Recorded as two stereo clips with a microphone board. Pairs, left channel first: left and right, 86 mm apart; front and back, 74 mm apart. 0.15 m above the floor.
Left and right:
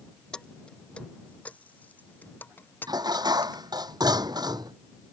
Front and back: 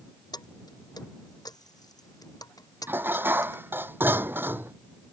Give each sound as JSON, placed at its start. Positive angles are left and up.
{"t": 0.3, "sound": "keys jangling", "azimuth_deg": 10}
{"t": 2.9, "sound": "dishes clattering", "azimuth_deg": -120}